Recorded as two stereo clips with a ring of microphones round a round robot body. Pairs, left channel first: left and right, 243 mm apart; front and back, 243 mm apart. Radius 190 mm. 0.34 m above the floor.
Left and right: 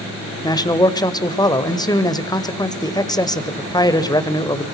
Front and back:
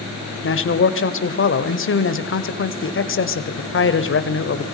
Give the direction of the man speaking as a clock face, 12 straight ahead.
11 o'clock.